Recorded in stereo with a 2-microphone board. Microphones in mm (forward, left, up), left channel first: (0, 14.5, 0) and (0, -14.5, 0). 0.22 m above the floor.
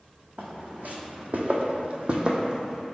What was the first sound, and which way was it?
Footsteps, 60° right (ahead or behind).